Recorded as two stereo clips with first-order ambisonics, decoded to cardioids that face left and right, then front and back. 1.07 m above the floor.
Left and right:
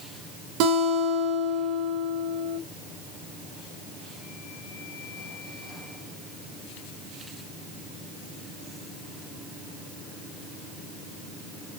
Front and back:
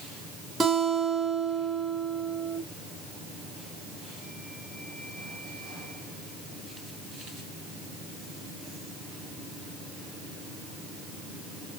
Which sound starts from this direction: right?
A guitar, at 0.6 s.